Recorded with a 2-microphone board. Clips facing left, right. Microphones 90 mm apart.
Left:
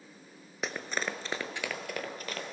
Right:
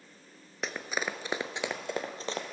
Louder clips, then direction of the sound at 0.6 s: Even; centre (ahead or behind).